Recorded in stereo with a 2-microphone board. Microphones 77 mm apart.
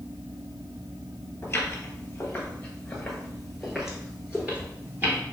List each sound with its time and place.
1.4 s footsteps: 30° left (ahead or behind), 1.7 m; by 5.2 s 25° right (ahead or behind), 1.7 m